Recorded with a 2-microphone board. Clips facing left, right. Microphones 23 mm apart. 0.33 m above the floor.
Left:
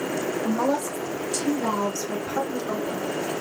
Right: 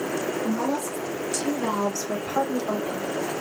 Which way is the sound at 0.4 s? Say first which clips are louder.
Left 2 dB; 45° left (ahead or behind).